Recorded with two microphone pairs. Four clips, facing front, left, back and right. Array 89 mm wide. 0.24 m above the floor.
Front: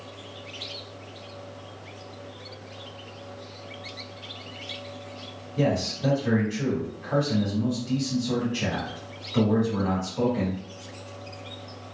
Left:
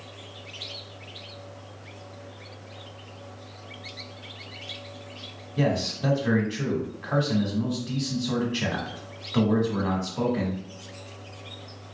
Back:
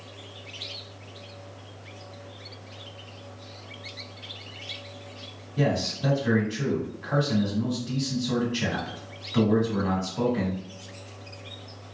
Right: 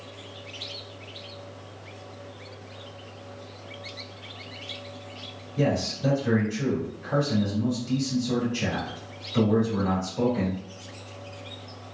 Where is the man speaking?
95° left, 1.3 m.